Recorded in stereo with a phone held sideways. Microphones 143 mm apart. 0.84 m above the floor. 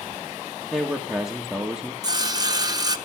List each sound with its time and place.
0.7 s a man speaking: 5° right (ahead or behind), 1.7 m
2.0 s sawing: 25° right (ahead or behind), 1.2 m